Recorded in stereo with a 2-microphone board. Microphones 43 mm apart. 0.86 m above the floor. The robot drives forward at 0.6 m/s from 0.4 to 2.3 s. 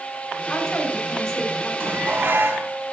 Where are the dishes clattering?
65° right (ahead or behind), 4 m; by 2.7 s 60° right (ahead or behind), 4 m.